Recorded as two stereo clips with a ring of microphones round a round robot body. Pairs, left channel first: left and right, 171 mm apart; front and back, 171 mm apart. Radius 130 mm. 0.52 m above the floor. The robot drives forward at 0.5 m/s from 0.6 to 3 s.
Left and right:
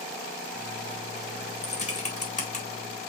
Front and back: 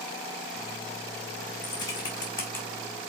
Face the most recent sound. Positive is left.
turn(degrees=85)